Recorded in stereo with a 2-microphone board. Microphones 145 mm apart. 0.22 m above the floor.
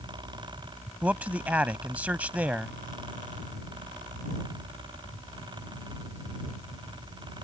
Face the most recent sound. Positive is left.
turn(degrees=-10)  # may be behind; listen again after turning